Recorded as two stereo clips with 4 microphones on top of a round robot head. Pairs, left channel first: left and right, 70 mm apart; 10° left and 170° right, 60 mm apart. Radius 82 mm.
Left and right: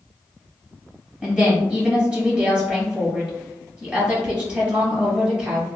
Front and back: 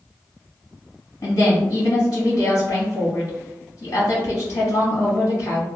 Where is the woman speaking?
20° right, 1.9 m.